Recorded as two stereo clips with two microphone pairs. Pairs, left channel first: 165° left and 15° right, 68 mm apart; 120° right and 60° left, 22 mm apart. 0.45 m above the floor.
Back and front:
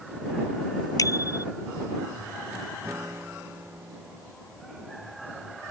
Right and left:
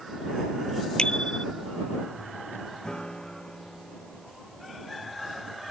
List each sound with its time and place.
1.0 s a bicycle bell: 165° right
2.8 s a guitar: 70° right